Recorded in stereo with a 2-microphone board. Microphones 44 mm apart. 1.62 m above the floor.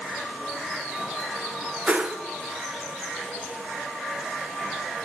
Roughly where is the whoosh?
Right.